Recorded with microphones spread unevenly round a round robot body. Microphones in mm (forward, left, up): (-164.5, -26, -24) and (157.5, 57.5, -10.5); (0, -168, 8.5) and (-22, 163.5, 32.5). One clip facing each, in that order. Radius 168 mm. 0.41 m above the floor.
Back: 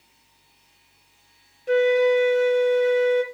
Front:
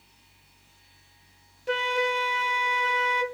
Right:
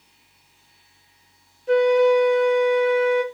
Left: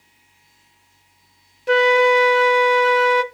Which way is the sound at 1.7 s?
90° left.